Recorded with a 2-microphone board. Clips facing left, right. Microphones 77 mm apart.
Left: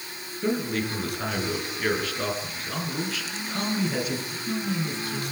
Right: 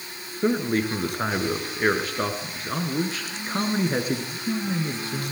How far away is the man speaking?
About 3.5 m.